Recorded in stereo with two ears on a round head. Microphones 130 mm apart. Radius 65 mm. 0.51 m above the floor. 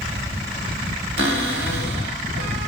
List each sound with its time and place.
1.2 s a cupboard door: 85° right, 1.2 m